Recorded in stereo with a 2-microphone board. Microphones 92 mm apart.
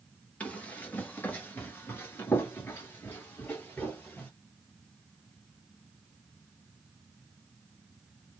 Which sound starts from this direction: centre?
Running footsteps, at 0.4 s.